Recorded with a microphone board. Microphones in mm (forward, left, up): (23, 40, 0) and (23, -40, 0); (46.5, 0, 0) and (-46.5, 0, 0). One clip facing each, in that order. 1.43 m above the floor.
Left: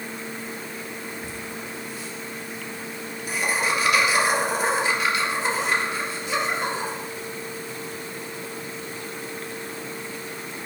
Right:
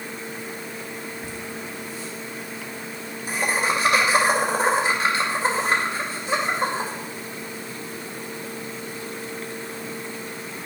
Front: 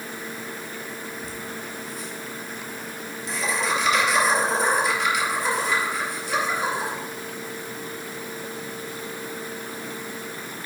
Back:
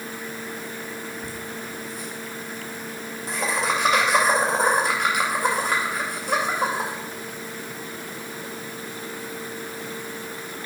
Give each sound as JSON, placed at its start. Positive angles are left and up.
{"t": 1.2, "sound": "laughter", "azimuth_deg": -145, "distance_m": 1.9}